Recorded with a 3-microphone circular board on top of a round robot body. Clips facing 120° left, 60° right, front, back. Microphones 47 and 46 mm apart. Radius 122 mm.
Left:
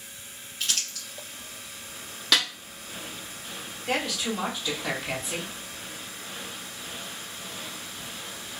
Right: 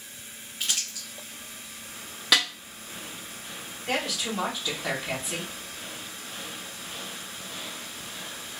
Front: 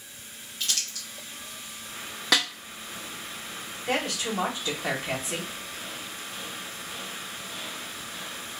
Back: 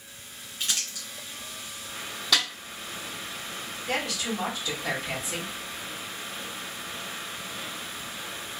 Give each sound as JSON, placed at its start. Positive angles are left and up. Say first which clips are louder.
{"t": 0.6, "sound": "crumpling", "louder": "left 1 dB, even", "azimuth_deg": -125, "distance_m": 1.4}
{"t": 2.3, "sound": "a snare drum", "louder": "right 1 dB, front 1 dB", "azimuth_deg": 20, "distance_m": 1.0}
{"t": 3.9, "sound": "a woman speaking", "louder": "left 1 dB, front 2 dB", "azimuth_deg": 25, "distance_m": 1.6}